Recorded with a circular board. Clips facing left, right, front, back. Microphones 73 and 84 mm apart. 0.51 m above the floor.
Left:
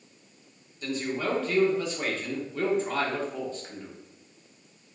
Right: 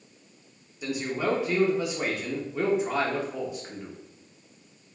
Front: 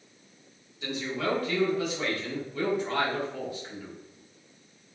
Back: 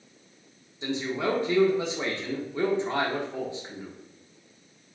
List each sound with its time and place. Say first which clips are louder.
0.8 s a man speaking: right 2 dB, back 3 dB; 150° right, 0.8 m